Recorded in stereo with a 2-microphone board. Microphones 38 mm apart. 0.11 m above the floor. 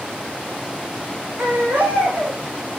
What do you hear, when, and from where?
1.4 s a baby crying: 80° right, 5.5 m